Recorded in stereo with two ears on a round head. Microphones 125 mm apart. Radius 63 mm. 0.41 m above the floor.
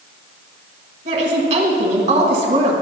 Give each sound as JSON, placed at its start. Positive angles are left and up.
{"t": 1.1, "sound": "a woman speaking", "side_deg": -50, "distance_m": 1.5}